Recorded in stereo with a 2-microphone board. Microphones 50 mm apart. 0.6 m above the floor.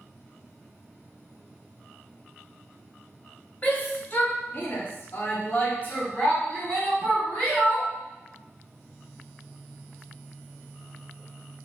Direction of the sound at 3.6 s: 30° left (ahead or behind).